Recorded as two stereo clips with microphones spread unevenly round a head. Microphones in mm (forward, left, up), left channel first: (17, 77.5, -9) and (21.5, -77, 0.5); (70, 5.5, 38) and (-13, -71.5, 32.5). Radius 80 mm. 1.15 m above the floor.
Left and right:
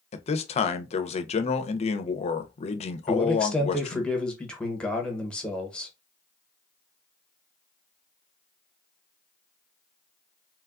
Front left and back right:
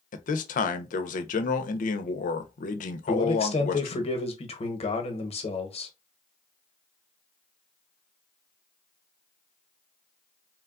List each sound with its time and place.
0.1 s a man speaking: 40° left, 0.5 m
3.1 s a man speaking: 10° left, 0.9 m